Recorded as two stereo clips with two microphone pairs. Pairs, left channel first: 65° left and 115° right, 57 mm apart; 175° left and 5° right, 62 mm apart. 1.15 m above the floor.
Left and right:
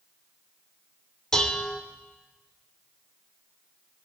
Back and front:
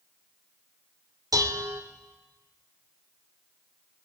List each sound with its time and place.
1.3 s dishes clattering: 10° right, 2.5 m